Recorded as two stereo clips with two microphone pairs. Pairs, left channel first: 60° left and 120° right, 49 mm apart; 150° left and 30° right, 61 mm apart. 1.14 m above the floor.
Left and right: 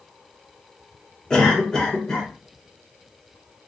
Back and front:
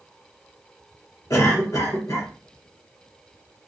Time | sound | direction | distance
1.3 | a cough | 130° left | 1.2 m